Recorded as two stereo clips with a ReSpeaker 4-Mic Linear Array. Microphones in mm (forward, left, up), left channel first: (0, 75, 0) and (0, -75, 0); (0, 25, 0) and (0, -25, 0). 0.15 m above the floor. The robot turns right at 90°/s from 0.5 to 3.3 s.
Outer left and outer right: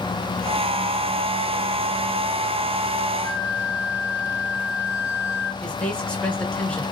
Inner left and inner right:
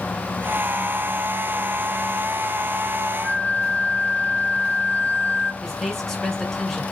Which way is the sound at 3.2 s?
30° left (ahead or behind).